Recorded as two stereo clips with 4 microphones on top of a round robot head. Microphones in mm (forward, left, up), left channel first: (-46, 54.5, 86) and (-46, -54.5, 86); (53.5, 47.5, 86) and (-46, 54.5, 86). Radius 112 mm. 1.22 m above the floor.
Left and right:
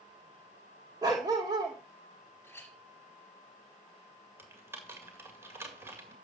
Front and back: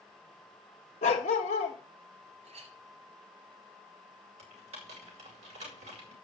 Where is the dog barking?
25° right, 1.2 m.